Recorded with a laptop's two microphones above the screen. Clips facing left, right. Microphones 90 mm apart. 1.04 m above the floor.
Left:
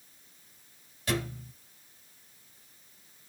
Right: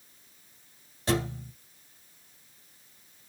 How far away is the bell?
No bell in this recording.